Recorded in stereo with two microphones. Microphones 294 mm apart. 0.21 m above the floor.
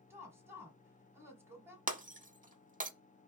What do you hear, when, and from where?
0.1 s a woman speaking: 10° right (ahead or behind), 1.5 m
1.9 s breaking glass: 25° right (ahead or behind), 0.6 m